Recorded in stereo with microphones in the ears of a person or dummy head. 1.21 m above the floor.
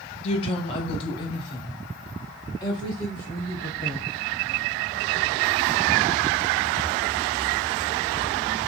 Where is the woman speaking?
35° left (ahead or behind), 0.8 m; by 4.1 s 25° left (ahead or behind), 3 m.